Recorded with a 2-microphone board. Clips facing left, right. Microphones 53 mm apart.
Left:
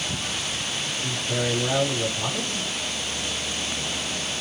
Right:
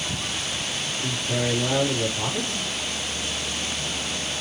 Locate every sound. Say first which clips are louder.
1.0 s a man speaking: right 1 dB; 25° right (ahead or behind), 5.5 m